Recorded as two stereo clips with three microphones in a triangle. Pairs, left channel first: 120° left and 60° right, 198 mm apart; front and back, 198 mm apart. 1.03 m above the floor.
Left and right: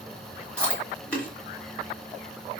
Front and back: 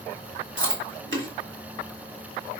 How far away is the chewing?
About 1.2 m.